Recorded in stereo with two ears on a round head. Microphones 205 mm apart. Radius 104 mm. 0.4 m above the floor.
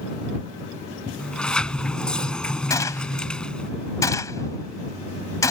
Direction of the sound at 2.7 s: 15° left (ahead or behind).